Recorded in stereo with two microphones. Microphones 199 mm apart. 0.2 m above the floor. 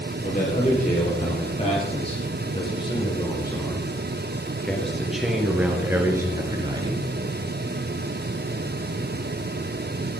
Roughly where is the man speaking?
Left.